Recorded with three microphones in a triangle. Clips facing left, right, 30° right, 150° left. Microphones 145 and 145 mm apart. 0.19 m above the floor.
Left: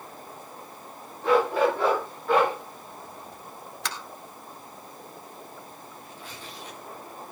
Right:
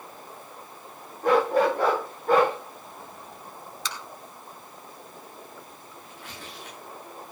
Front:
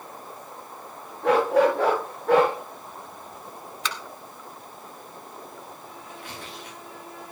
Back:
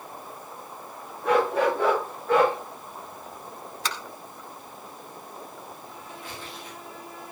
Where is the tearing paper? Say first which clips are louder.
Right 1 dB, even; 60° right, 9 m.